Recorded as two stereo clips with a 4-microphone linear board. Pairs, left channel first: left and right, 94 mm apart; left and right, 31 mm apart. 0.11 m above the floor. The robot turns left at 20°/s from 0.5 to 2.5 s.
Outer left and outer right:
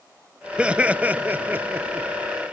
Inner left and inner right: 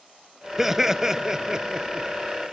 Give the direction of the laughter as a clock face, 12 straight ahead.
1 o'clock.